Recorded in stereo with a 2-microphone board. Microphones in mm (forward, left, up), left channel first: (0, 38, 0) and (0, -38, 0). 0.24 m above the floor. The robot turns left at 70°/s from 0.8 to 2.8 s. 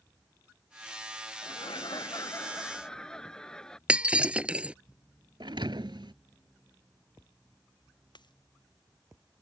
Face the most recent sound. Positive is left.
turn(degrees=75)  # may be behind; listen again after turning